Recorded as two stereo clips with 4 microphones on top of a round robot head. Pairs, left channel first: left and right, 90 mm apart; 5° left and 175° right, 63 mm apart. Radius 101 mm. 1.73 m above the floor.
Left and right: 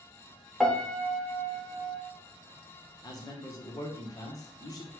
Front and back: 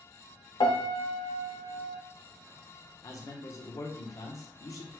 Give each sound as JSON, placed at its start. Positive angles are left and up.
{"t": 0.6, "sound": "a piano", "azimuth_deg": 0, "distance_m": 1.0}
{"t": 3.0, "sound": "a man speaking", "azimuth_deg": 40, "distance_m": 1.2}